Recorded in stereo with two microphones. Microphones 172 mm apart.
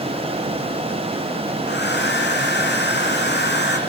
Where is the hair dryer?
85° left, 4.5 m.